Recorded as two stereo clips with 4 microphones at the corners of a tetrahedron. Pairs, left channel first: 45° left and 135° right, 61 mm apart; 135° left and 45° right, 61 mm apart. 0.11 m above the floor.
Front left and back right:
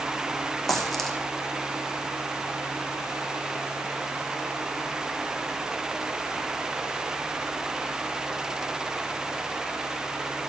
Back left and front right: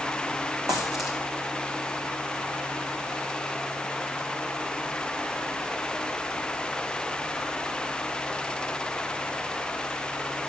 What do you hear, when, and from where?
0.7 s a dropped coin: 40° right, 1.9 m